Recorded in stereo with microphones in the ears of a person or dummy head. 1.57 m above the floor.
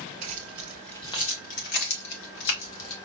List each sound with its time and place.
0.2 s keys jangling: 35° right (ahead or behind), 0.7 m; by 2.9 s 70° left (ahead or behind), 1.6 m